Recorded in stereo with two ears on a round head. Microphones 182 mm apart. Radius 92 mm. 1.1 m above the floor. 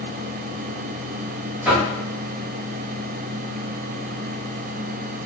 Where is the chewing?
No chewing in this recording.